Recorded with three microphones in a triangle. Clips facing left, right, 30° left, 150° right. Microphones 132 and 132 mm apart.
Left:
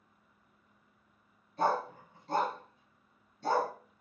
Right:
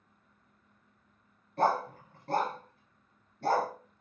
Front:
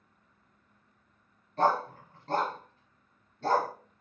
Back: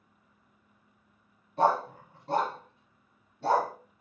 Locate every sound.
1.6 s a dog barking: 70° right, 1.7 m